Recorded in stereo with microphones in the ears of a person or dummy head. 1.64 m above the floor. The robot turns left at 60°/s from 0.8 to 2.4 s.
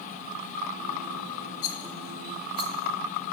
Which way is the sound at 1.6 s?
40° left (ahead or behind).